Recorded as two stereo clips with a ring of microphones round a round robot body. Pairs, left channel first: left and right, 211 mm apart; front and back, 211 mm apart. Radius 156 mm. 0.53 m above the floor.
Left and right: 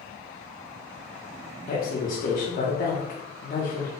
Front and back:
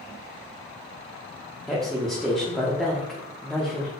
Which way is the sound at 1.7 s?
85° left.